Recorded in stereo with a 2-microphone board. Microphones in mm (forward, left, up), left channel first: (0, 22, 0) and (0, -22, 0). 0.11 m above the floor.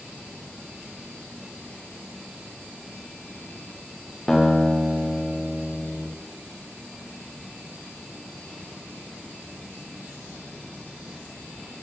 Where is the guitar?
10° left (ahead or behind), 3.5 m.